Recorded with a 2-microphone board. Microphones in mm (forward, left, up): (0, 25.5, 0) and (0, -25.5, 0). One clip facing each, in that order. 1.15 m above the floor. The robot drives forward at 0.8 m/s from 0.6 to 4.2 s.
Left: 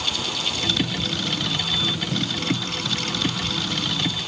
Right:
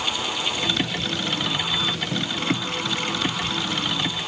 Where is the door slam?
I don't hear a door slam.